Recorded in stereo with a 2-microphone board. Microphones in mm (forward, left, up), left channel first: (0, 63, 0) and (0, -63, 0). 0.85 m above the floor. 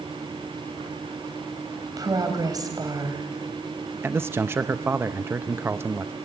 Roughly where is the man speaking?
Centre.